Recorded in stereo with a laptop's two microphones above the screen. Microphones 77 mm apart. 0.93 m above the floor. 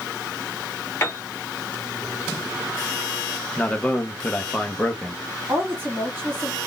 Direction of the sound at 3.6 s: 15° left (ahead or behind).